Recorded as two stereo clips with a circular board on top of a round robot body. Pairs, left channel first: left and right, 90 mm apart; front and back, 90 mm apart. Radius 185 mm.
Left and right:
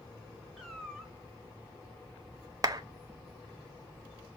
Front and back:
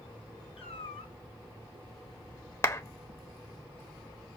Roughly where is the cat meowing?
Ahead.